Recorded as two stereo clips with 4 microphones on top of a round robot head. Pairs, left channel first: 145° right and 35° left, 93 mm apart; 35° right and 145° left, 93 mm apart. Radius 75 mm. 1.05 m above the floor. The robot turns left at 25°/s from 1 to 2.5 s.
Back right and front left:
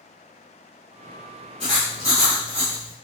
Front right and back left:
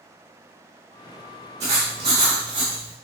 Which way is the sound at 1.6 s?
170° right.